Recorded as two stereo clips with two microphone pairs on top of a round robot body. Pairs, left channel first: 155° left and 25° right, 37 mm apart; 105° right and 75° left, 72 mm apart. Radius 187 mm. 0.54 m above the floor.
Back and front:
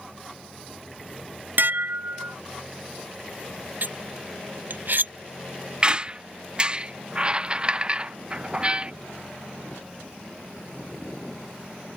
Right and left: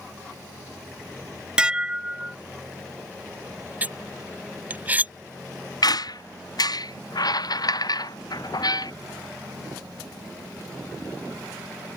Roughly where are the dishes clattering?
Ahead.